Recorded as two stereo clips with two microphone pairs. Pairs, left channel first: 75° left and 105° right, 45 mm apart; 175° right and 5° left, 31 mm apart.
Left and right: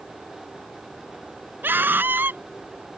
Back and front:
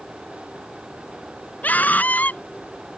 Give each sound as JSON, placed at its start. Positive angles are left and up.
{"t": 1.6, "sound": "a scream", "azimuth_deg": -145}